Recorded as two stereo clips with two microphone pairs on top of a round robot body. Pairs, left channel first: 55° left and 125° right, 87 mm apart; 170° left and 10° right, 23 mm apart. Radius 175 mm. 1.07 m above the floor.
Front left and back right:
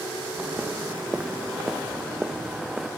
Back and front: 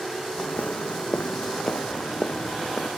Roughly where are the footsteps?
Behind.